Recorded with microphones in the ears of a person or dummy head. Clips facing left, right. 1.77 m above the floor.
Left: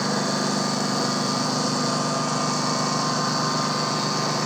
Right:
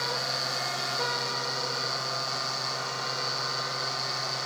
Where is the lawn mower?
85° left.